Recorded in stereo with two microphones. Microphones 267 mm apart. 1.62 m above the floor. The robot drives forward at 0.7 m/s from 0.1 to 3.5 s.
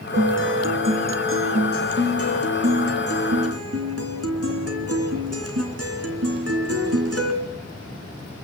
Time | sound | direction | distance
0.1 | a guitar | 45° right (ahead or behind) | 4 m